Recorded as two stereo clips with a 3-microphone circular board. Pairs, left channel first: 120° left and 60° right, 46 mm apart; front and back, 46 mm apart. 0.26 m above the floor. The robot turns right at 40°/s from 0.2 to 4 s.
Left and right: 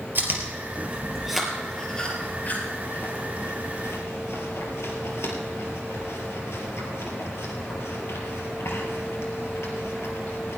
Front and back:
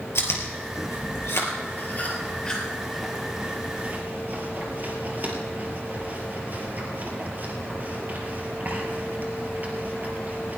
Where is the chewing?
20° right, 3.5 m; by 10.6 s 130° left, 3.5 m.